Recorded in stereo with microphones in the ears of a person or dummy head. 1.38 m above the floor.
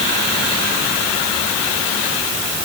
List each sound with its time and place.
Only background noise.